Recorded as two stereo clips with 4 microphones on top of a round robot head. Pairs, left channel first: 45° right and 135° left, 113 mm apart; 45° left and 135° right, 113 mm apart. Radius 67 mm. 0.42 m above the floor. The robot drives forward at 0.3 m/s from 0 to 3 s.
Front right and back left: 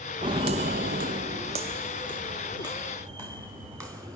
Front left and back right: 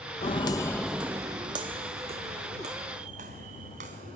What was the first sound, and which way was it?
Footsteps, 85° left.